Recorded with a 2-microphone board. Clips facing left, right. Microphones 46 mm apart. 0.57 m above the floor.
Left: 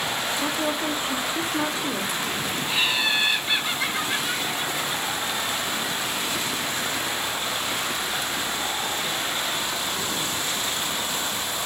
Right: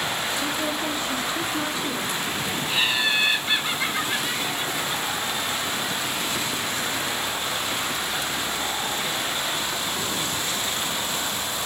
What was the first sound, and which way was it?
A woman speaking, 20° left (ahead or behind).